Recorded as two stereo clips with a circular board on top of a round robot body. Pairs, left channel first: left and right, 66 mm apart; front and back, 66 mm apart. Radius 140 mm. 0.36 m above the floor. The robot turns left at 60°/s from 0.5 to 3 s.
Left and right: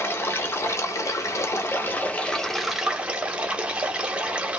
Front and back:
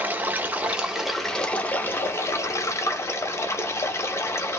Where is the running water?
130° left, 0.9 m; by 4.6 s 20° right, 0.9 m.